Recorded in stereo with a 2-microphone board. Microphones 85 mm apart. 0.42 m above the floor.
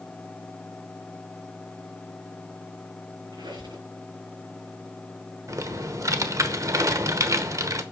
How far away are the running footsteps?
I don't hear running footsteps.